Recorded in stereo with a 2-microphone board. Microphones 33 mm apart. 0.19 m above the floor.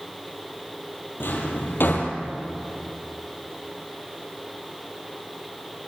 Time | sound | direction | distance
1.2 | a drawer | 80° left | 2.5 m